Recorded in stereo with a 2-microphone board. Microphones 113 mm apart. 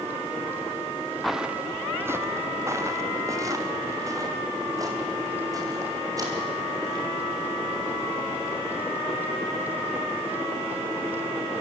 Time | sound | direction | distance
1.2 | footsteps | centre (ahead or behind) | 0.7 m